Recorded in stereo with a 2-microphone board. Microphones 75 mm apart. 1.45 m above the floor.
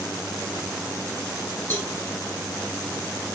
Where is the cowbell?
25° left (ahead or behind), 3.5 m.